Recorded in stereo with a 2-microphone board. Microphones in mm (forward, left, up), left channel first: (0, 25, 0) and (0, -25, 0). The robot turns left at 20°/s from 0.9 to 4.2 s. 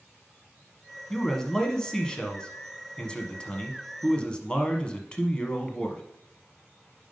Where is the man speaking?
10° left (ahead or behind), 1.0 m; by 6.0 s 20° left (ahead or behind), 1.0 m.